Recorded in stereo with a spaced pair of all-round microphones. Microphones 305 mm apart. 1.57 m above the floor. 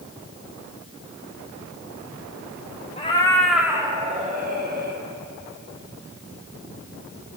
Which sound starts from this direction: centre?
A cat meowing, at 3.0 s.